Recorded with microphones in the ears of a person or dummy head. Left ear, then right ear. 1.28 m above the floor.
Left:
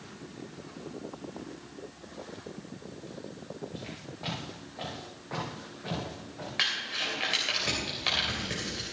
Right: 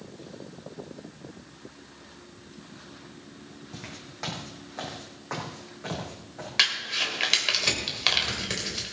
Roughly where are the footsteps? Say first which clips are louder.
Even; right.